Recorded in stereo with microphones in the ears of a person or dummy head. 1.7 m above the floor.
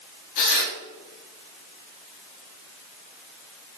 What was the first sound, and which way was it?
Tearing paper, 65° left (ahead or behind).